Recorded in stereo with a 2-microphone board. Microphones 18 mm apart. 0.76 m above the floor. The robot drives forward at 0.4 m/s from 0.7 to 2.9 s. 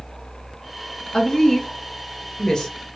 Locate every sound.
1.1 s a woman speaking: 35° left (ahead or behind), 0.8 m